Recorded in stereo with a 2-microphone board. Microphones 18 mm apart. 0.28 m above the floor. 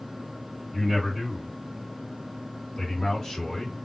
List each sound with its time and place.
0.7 s a man speaking: 15° right (ahead or behind), 1.5 m; by 3.8 s 30° left (ahead or behind), 2 m